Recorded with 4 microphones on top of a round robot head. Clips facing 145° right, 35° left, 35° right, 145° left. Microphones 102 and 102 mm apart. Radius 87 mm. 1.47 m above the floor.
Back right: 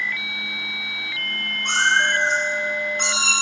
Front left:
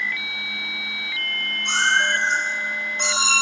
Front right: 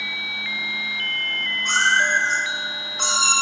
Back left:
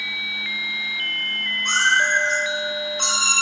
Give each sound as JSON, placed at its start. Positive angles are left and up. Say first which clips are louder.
{"t": 1.6, "sound": "a cat meowing", "louder": "back right 1 dB, even", "azimuth_deg": -90, "distance_m": 5.0}